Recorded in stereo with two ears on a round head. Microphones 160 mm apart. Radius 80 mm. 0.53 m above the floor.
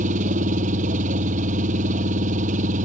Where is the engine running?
45° right (ahead or behind).